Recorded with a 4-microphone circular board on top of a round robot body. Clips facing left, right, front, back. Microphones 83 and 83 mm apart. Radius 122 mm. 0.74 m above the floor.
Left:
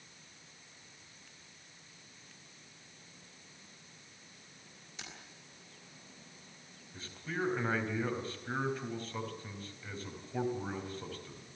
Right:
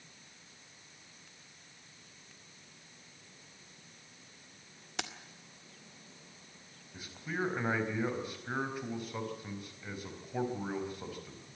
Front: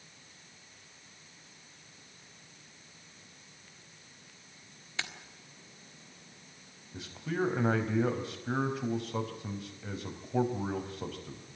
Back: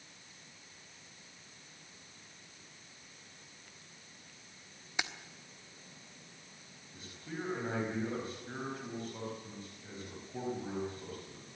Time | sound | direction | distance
5.0 | keys jangling | 105° right | 1.7 m
6.9 | a man speaking | 10° right | 4.5 m